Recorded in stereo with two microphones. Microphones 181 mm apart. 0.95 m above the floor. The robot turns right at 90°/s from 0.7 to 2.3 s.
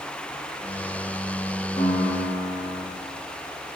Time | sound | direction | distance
1.8 | a piano | 30° left | 0.8 m